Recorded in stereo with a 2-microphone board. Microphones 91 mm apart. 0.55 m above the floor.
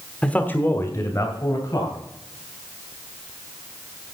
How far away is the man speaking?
About 1.1 m.